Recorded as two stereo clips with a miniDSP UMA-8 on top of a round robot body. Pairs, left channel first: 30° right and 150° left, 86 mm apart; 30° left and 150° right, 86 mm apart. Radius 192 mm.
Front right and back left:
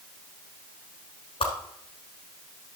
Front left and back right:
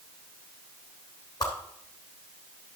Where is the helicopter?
I don't hear a helicopter.